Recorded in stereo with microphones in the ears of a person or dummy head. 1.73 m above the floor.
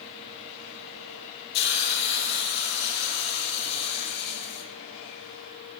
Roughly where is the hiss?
Left.